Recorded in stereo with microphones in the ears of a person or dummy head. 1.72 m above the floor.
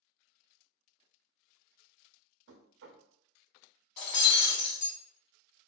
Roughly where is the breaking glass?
Left.